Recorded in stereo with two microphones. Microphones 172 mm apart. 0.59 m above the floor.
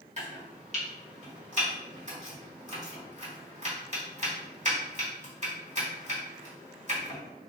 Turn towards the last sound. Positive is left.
turn(degrees=-45)  # may be behind; listen again after turning